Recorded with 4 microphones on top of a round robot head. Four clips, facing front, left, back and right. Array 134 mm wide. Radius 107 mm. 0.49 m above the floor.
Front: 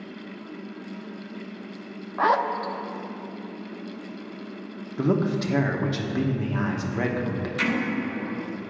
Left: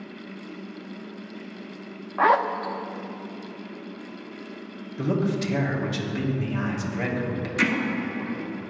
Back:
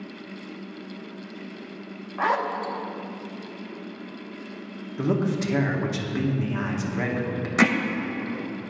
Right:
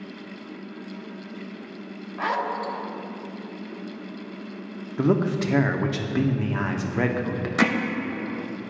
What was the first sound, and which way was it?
A zipper, 70° left.